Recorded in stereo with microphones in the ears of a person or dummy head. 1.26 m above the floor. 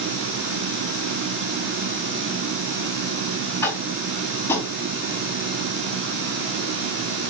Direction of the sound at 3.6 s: 15° left (ahead or behind).